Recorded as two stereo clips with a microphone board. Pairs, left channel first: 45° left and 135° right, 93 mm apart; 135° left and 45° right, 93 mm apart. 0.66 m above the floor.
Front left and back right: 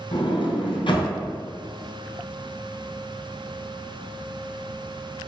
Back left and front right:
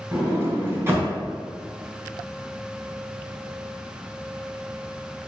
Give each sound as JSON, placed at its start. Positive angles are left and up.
{"t": 0.1, "sound": "a sliding door", "azimuth_deg": 20, "distance_m": 3.5}